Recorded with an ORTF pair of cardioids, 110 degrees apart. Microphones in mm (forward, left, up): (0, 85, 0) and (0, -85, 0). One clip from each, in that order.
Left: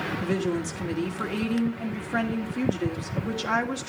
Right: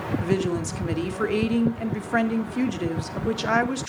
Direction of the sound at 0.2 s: 30° right.